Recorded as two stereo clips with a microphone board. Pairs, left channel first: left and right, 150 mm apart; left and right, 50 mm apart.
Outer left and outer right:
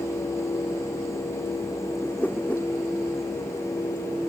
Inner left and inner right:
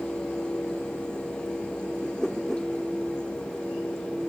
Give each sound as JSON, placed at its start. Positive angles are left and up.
{"t": 2.0, "sound": "a whoosh", "side_deg": 10}